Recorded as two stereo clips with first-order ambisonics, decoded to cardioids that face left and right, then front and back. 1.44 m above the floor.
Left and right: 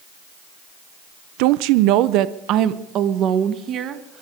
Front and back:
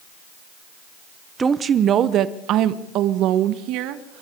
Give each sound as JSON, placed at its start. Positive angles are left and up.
{"t": 1.4, "sound": "a woman speaking", "azimuth_deg": -105, "distance_m": 0.7}